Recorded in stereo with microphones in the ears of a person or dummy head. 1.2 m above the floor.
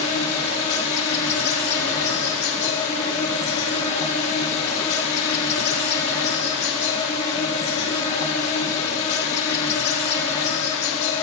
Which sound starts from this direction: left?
An insect, at 0.0 s.